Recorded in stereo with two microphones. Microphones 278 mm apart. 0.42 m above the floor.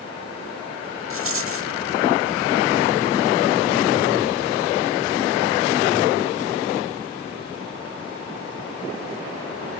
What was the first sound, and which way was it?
A rattle, 50° right (ahead or behind).